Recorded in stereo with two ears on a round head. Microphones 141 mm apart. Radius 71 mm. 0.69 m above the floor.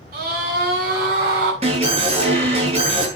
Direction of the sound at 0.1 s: 60° right (ahead or behind).